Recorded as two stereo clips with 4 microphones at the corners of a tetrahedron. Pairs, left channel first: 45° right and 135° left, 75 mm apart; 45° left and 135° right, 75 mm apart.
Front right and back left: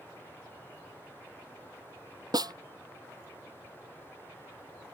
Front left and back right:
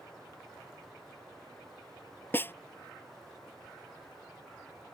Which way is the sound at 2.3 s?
105° left.